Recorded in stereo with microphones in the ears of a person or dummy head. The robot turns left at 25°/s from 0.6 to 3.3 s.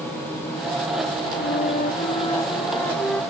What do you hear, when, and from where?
1.4 s a flute: 50° left; by 3.2 s 5° left